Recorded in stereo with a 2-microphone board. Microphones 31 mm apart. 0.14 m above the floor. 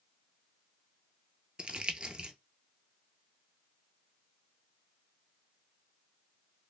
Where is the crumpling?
35° right (ahead or behind), 0.5 m.